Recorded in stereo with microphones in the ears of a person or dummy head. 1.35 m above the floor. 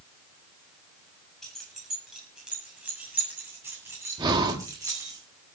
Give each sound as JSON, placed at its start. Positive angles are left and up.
{"t": 1.4, "sound": "keys jangling", "side_deg": 5, "distance_m": 7.0}
{"t": 4.2, "sound": "breathing", "side_deg": -25, "distance_m": 2.5}